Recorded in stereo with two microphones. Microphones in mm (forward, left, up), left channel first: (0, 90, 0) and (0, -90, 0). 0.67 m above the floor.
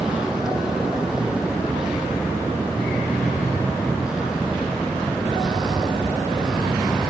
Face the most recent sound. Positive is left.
turn(degrees=-5)  # may be behind; listen again after turning